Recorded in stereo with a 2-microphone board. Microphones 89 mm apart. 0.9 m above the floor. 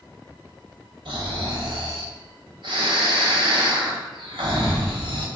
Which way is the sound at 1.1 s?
70° right (ahead or behind).